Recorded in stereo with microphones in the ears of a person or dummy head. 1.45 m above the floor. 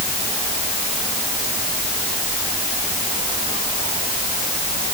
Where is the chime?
I don't hear a chime.